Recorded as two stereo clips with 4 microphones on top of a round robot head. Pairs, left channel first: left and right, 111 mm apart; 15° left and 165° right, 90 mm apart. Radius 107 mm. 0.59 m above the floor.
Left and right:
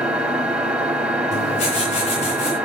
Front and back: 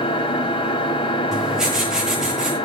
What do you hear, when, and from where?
0.0 s an engine running: 5° right, 3 m
1.3 s writing: 110° left, 6.5 m